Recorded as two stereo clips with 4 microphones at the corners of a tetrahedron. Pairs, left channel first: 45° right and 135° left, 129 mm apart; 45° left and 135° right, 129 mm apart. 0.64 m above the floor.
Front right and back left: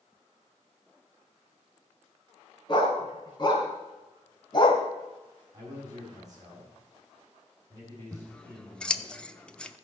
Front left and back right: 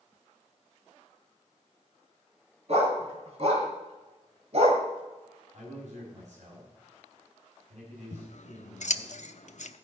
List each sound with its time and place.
2.7 s a dog barking: 100° right, 3.5 m; by 4.8 s 95° right, 1.6 m
5.5 s a man speaking: 160° right, 5 m
8.1 s scissors: 35° left, 0.7 m